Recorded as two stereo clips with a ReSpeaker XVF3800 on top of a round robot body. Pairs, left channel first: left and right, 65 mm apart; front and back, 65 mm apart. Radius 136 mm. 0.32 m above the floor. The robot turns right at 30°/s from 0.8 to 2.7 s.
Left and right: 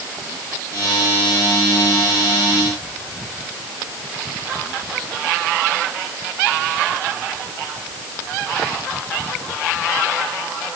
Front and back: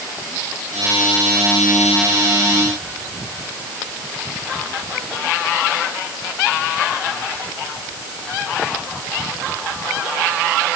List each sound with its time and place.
Only background noise.